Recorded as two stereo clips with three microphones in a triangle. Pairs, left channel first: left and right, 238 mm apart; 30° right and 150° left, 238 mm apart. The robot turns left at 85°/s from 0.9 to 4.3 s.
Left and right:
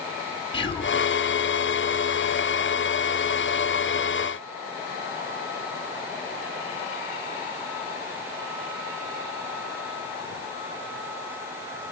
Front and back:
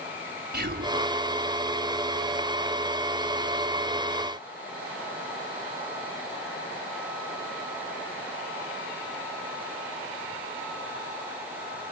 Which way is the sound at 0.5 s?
140° left.